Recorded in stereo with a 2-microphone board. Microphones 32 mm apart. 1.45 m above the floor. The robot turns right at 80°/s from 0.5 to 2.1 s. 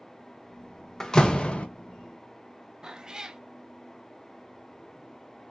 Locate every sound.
1.0 s a door slam: 25° left, 0.7 m; by 1.7 s 75° left, 0.7 m
2.8 s a cat meowing: 20° right (ahead or behind), 0.7 m